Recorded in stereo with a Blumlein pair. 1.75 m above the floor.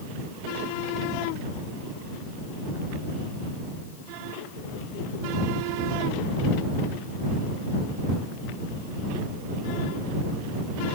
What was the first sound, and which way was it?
Only background noise.